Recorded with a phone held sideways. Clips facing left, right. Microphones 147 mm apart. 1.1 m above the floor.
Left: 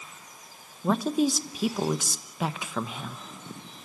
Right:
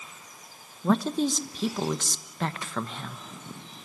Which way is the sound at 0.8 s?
5° left (ahead or behind).